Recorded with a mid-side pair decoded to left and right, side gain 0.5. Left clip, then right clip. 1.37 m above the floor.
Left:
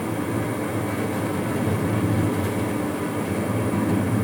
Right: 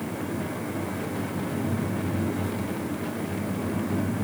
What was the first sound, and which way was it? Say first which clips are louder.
A fan: left 6 dB; 55° left.